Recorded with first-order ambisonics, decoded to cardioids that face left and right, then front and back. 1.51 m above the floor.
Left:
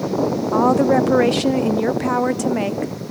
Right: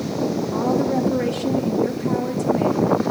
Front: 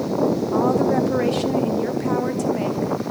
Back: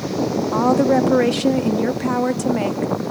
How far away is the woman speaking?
About 0.5 m.